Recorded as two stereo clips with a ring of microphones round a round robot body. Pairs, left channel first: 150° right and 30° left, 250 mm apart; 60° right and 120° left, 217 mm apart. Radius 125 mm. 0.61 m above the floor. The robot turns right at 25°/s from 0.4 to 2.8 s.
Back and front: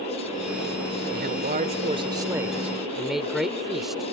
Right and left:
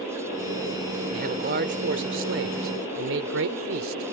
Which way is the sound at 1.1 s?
75° left.